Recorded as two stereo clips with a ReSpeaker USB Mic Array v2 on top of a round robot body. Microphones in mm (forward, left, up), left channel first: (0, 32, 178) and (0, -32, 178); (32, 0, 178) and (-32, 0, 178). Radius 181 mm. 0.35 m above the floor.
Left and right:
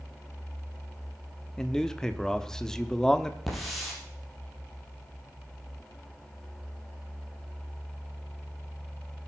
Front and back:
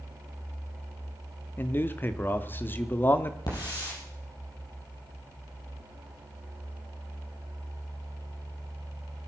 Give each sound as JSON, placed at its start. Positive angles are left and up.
{"t": 1.6, "sound": "a man speaking", "azimuth_deg": 15, "distance_m": 1.4}
{"t": 3.5, "sound": "a hiss", "azimuth_deg": 0, "distance_m": 6.0}